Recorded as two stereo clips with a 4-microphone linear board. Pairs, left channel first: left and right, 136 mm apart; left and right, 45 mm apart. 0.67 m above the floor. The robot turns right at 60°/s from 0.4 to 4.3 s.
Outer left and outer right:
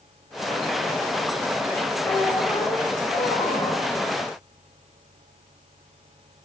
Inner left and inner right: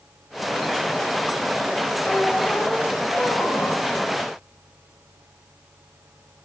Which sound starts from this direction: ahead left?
A squeak, at 2.0 s.